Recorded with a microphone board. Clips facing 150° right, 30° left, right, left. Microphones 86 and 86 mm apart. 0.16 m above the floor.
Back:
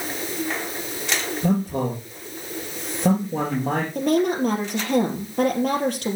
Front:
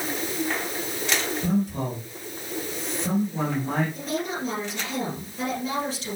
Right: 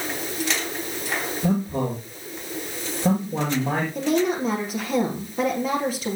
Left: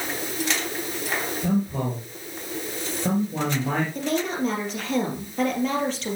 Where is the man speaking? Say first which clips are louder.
Back 5 dB, right 2 dB; 160° right, 4 m.